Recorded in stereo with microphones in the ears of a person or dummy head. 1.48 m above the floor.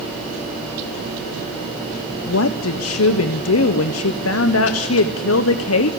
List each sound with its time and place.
2.3 s a woman speaking: 75° left (ahead or behind), 0.8 m